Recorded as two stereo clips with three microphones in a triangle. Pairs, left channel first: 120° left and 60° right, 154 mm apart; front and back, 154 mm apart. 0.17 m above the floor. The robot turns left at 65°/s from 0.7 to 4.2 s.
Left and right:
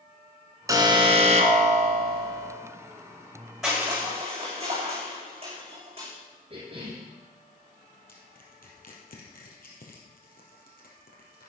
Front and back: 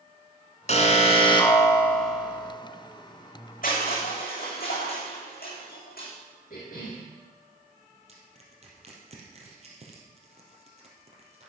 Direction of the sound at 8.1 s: 135° left.